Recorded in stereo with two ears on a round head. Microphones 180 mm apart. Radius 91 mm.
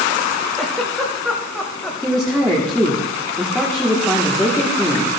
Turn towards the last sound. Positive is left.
turn(degrees=0)  # may be behind; listen again after turning